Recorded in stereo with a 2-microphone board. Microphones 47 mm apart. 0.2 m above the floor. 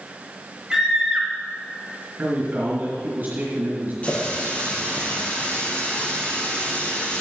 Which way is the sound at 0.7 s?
10° right (ahead or behind).